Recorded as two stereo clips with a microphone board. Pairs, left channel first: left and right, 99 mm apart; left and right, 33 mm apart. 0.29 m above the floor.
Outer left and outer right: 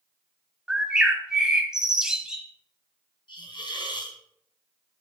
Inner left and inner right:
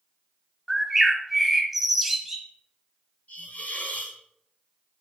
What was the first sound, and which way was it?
A bird, 5° right (ahead or behind).